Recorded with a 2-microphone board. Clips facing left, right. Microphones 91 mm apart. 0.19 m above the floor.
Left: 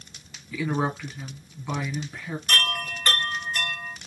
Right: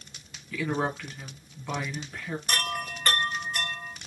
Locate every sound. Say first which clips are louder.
0.5 s a woman speaking: left 2 dB; 10° left (ahead or behind), 1.8 m
2.5 s a chime: left 4 dB; 15° right (ahead or behind), 1.1 m